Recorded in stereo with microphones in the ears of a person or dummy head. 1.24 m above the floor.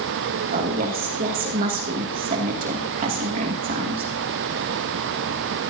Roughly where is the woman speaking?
Right.